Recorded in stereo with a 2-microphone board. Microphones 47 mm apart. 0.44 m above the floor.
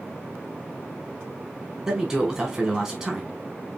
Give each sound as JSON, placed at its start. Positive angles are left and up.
{"t": 1.9, "sound": "a man speaking", "side_deg": 0, "distance_m": 1.1}